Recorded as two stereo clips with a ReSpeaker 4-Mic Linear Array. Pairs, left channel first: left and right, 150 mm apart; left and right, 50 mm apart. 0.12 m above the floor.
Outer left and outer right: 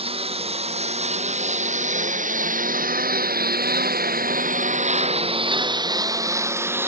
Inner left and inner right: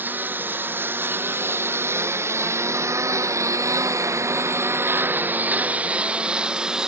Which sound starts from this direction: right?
A lawn mower, at 0.0 s.